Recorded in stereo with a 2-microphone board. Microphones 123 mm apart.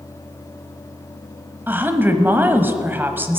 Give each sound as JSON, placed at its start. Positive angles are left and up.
{"t": 1.7, "sound": "a woman speaking", "side_deg": -20, "distance_m": 1.0}